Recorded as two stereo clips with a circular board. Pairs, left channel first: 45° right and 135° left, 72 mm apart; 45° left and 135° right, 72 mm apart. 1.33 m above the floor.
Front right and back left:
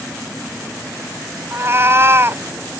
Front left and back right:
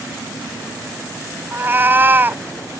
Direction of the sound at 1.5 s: 175° left.